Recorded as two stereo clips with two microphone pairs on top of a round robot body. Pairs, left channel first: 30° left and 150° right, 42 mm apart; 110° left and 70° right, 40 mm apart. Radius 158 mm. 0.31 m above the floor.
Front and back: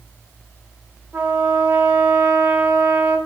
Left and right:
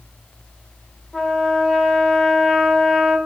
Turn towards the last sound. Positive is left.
turn(degrees=-175)